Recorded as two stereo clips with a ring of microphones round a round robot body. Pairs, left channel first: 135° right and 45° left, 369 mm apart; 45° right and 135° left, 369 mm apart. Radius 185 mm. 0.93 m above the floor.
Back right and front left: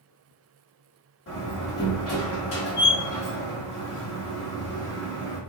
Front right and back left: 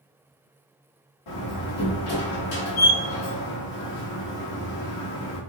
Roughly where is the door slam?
Right.